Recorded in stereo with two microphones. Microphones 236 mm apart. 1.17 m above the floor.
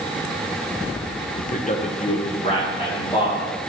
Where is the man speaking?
35° left (ahead or behind), 0.6 m; by 3.6 s 25° left (ahead or behind), 2.5 m.